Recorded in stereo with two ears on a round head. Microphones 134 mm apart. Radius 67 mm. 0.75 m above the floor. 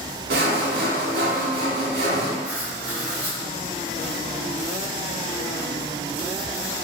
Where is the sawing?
80° right, 1.0 m.